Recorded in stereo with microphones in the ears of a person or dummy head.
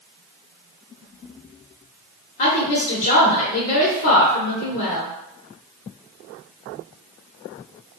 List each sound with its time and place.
2.4 s a woman speaking: 35° left (ahead or behind), 0.8 m